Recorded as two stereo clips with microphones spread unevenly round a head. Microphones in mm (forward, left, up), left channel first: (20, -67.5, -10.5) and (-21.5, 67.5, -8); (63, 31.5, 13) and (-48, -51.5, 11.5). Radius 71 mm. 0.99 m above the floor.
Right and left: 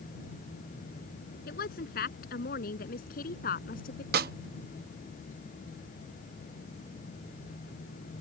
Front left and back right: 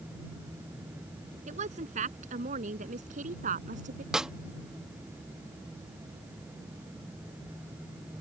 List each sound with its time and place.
1.5 s a woman speaking: 100° right; by 4.0 s 105° right
4.1 s a snare drum: 130° left